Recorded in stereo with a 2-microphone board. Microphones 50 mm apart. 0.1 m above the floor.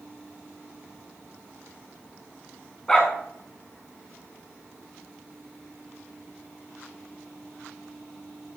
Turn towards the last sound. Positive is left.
turn(degrees=20)  # may be behind; listen again after turning